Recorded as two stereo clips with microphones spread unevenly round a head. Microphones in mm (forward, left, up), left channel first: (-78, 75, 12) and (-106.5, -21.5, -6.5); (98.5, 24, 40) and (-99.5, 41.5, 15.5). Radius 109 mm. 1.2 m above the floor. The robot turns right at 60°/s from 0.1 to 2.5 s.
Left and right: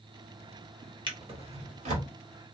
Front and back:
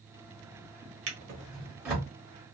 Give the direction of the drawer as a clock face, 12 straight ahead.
5 o'clock.